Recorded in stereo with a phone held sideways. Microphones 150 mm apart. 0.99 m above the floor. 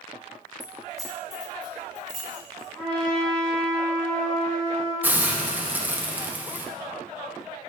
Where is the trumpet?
10° left (ahead or behind), 2 m.